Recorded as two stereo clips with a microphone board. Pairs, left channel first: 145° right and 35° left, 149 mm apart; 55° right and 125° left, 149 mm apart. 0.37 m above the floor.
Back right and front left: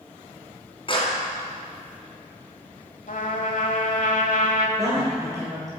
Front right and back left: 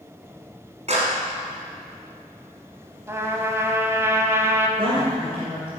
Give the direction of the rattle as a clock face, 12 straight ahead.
No rattle in this recording.